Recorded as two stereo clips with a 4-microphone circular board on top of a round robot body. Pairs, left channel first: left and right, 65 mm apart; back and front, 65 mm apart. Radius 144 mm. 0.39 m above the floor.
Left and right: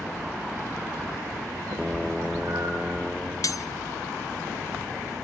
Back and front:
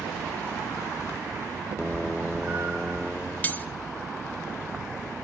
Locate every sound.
1.7 s a cat meowing: 50° right, 6.5 m; by 3.0 s 45° right, 5.5 m
3.4 s cutlery clinking: 115° left, 1.2 m